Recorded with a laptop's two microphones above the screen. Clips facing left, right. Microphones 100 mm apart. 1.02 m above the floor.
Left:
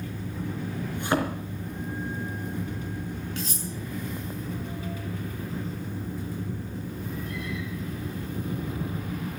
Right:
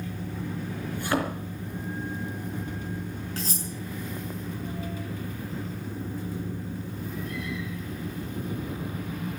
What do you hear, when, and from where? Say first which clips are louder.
0.9 s a thud: left 1 dB; 20° left (ahead or behind), 4 m
3.4 s cutlery clinking: even; 35° right (ahead or behind), 6 m